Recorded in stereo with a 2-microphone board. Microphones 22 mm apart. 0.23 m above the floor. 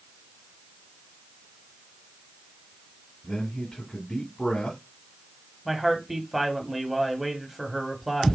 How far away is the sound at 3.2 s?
About 1.8 m.